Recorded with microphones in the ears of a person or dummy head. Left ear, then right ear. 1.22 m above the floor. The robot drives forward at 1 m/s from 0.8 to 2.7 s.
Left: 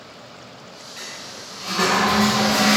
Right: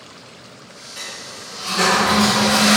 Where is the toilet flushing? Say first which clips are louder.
Right 3 dB; 20° right (ahead or behind), 2.5 m; by 2.8 s 10° right (ahead or behind), 4 m.